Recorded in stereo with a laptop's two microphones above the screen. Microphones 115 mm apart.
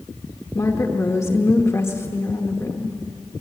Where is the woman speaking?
25° left (ahead or behind), 0.9 m.